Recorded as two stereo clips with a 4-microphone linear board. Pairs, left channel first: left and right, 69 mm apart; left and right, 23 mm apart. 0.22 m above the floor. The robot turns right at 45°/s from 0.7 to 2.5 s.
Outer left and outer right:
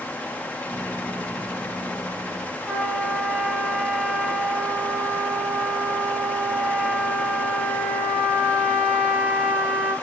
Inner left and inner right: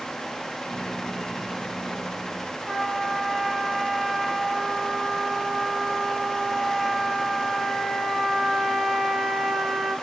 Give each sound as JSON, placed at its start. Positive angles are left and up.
{"t": 2.7, "sound": "a trumpet", "side_deg": 0, "distance_m": 4.0}